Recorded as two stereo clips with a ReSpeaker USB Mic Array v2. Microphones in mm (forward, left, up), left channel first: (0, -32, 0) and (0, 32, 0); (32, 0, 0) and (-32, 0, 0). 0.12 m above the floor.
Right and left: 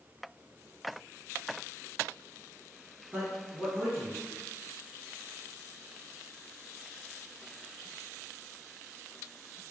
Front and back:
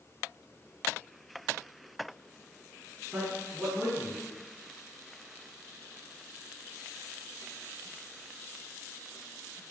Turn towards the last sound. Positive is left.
turn(degrees=130)